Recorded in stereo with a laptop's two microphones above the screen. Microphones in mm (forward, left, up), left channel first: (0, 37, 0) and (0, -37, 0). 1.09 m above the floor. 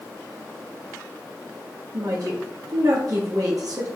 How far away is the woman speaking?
About 1.1 m.